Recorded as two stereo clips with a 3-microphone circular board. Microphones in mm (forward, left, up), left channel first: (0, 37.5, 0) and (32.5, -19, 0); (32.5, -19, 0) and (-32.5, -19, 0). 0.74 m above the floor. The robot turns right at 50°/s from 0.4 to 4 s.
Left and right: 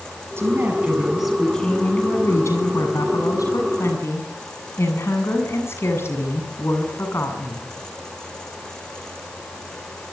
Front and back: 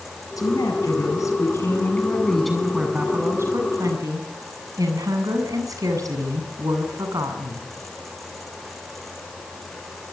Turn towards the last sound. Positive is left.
turn(degrees=165)